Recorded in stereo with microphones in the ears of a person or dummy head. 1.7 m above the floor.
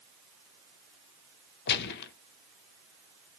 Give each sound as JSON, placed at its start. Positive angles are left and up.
{"t": 1.7, "sound": "a gunshot", "side_deg": 60, "distance_m": 0.5}